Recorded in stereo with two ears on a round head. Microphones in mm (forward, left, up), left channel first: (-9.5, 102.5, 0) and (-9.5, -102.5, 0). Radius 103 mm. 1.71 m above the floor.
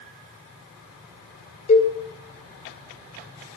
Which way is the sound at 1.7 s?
30° left (ahead or behind).